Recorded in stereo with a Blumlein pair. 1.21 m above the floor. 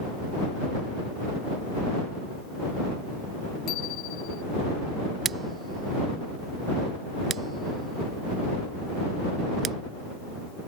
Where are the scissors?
25° right.